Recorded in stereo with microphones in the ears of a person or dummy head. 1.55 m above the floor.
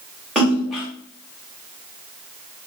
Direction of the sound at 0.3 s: 5° right (ahead or behind).